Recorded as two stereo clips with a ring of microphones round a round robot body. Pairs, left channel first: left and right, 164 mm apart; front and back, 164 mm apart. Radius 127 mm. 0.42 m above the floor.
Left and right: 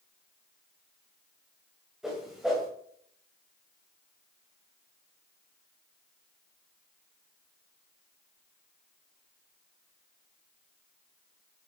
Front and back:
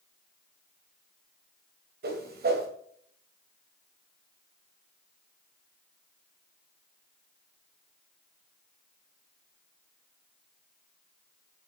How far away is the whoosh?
About 2.5 m.